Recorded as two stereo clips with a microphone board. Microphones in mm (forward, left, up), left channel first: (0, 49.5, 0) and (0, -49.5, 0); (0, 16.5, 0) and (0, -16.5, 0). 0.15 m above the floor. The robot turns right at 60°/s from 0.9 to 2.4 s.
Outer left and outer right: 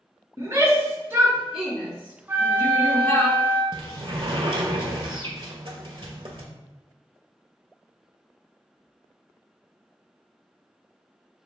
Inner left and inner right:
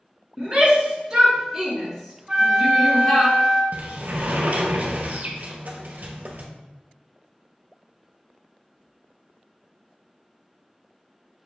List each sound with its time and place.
0.4 s a shout: 30° right (ahead or behind), 1.7 m; by 3.3 s 25° left (ahead or behind), 1.7 m
2.3 s a flute: 20° right (ahead or behind), 0.9 m
3.7 s a sliding door: 60° right (ahead or behind), 0.8 m